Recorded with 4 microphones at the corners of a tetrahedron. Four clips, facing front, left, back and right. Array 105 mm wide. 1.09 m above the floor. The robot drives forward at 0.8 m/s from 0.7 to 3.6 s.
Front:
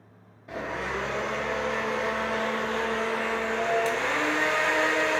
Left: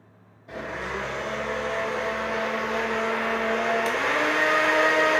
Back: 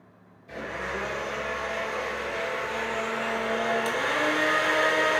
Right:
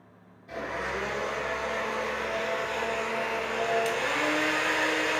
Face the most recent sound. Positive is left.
turn(degrees=105)